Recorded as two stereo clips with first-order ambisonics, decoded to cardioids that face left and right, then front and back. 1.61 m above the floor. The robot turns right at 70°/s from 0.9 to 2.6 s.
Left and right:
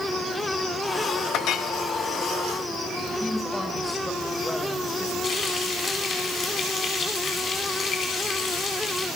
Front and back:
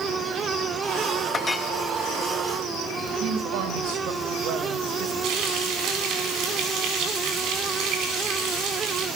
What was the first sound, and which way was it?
A clink, 65° left.